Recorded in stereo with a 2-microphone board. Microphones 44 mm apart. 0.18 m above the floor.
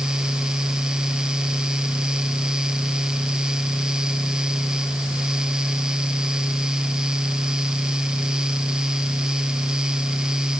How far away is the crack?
No crack in this recording.